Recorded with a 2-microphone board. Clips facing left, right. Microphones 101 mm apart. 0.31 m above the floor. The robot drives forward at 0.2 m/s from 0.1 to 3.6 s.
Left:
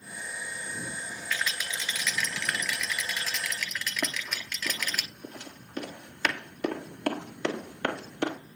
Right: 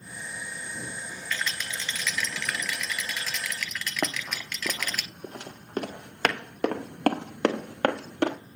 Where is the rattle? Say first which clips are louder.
Even; 10° left (ahead or behind), 1.5 m; by 5.0 s 5° left (ahead or behind), 2.0 m.